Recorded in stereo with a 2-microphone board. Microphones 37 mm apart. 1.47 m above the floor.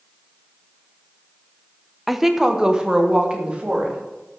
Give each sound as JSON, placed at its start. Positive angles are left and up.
{"t": 2.1, "sound": "a woman speaking", "side_deg": -5, "distance_m": 0.9}